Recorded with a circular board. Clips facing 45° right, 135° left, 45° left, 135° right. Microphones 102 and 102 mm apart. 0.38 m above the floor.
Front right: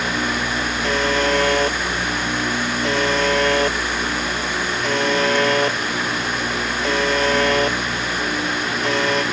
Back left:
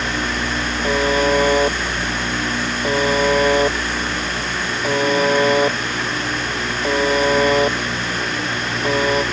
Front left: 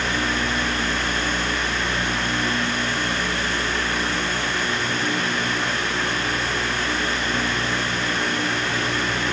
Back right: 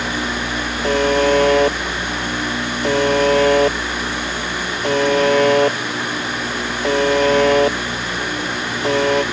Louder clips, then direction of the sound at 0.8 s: Back left 3 dB, back right 10 dB; 145° right.